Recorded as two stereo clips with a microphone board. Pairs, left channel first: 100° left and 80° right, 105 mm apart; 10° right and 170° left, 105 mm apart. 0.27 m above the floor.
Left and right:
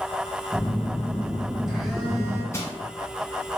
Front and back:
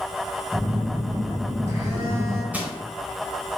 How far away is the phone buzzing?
About 1.4 m.